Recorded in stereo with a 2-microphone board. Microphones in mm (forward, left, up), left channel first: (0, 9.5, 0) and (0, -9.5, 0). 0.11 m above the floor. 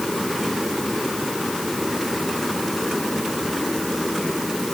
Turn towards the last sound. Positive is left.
No sound to turn to.